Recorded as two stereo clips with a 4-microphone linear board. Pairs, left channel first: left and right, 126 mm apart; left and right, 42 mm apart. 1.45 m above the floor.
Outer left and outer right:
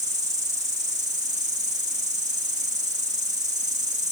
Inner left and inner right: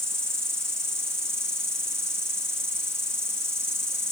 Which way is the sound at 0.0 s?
75° right (ahead or behind).